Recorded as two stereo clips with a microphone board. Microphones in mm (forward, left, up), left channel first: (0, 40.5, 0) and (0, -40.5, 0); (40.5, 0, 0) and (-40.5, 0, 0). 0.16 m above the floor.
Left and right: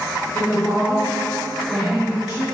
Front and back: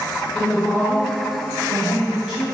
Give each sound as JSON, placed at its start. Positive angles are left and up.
{"t": 0.3, "sound": "a woman speaking", "azimuth_deg": 60, "distance_m": 1.7}